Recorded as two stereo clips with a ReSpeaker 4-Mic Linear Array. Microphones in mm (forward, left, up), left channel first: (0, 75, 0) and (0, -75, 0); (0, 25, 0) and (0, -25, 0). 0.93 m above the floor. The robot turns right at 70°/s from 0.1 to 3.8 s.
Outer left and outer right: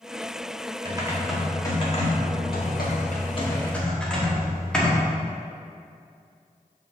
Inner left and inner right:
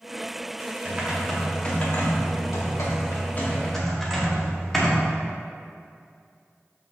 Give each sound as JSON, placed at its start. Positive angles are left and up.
{"t": 0.8, "sound": "typing on a keyboard", "azimuth_deg": -30, "distance_m": 1.2}